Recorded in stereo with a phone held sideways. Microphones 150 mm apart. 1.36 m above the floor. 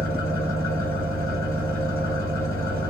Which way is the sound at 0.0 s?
70° right (ahead or behind).